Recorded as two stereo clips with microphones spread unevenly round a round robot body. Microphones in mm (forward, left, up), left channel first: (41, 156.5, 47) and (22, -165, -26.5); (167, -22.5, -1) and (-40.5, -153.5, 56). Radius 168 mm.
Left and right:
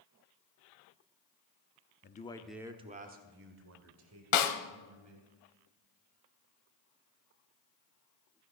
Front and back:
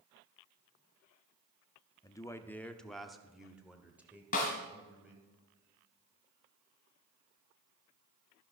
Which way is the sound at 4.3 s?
100° left.